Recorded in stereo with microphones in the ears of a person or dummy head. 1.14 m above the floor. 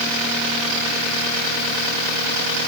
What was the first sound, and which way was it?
Only background noise.